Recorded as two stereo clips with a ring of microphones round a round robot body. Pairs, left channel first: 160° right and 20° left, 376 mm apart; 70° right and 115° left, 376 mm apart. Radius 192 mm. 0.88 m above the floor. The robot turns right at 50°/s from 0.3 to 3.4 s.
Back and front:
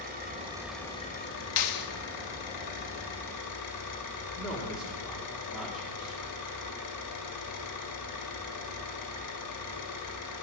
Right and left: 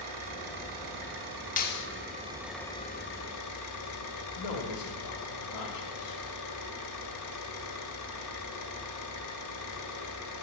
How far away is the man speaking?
About 1.7 m.